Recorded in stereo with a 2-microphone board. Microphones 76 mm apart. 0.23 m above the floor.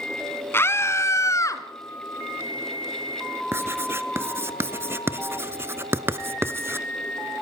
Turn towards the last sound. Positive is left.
turn(degrees=-30)  # may be behind; listen again after turning